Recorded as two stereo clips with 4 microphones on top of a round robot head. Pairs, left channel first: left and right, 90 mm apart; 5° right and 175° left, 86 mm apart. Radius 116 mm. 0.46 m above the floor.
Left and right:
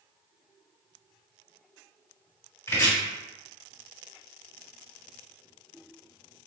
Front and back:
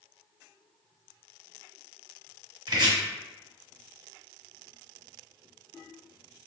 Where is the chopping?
145° left, 1.5 m.